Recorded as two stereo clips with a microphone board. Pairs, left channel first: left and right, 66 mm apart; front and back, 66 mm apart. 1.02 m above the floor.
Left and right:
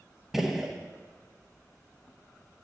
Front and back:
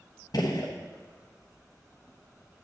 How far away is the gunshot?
About 1.0 m.